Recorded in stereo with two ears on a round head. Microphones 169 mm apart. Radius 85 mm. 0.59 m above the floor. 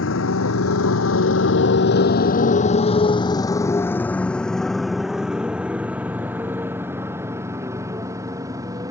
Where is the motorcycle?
75° left (ahead or behind); by 8.9 s 20° right (ahead or behind).